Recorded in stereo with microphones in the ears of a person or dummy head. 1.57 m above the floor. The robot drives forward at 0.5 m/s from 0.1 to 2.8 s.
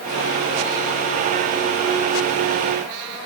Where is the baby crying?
I don't hear a baby crying.